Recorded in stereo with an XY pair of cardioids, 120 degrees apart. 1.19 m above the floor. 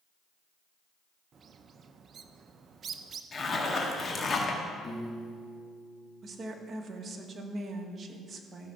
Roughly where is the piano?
Ahead left.